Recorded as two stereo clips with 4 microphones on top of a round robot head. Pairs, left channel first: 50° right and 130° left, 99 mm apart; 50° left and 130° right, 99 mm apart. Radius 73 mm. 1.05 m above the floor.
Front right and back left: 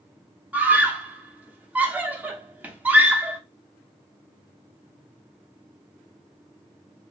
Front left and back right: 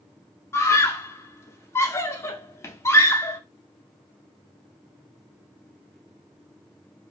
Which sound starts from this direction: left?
A scream, at 0.5 s.